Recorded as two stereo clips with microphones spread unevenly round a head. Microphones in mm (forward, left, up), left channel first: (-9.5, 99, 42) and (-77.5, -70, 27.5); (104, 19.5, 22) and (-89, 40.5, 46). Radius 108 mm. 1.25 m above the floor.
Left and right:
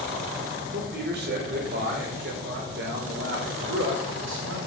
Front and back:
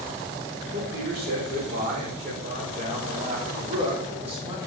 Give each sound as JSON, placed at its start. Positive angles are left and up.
{"t": 0.7, "sound": "a man speaking", "azimuth_deg": -140, "distance_m": 5.5}